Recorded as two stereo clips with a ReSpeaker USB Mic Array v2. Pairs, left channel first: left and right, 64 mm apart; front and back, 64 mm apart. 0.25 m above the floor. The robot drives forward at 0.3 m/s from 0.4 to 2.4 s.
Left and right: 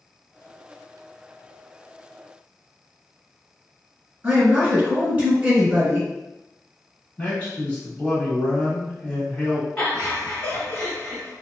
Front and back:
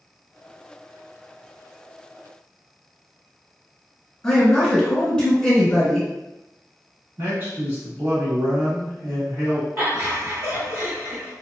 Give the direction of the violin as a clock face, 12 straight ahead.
I don't hear a violin.